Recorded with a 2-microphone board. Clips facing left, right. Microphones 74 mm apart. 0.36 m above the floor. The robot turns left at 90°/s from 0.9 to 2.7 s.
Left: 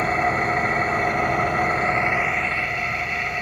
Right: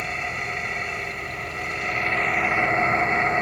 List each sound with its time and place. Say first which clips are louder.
0.0 s an engine running: left 9 dB; 130° left, 0.8 m; by 3.4 s 30° right, 0.8 m